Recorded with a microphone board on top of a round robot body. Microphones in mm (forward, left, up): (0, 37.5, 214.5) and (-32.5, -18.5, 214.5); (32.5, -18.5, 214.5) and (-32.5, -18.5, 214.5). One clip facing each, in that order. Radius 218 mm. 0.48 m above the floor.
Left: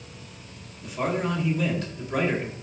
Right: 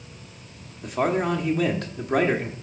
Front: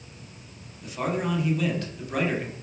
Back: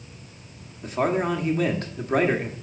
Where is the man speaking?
140° right, 1.9 m.